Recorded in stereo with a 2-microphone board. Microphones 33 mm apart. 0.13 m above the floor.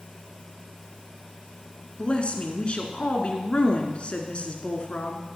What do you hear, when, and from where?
2.0 s a woman speaking: 35° left (ahead or behind), 1.9 m